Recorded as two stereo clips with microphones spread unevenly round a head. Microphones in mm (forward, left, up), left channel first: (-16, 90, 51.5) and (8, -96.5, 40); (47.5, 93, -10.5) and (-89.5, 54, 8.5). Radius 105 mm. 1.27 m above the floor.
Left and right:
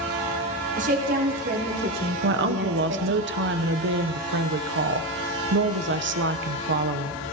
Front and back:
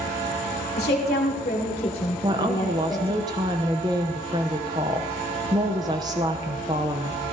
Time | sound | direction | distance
0.8 | a woman speaking | 30° right | 3.5 m
2.2 | a woman speaking | 90° right | 0.8 m